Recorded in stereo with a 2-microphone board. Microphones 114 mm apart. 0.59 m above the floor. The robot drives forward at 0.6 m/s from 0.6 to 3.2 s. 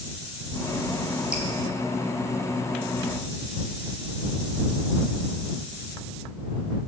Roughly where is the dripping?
Centre.